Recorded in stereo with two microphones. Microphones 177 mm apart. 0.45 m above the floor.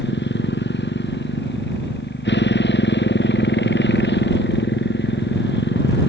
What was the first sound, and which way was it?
A motorcycle, 90° left.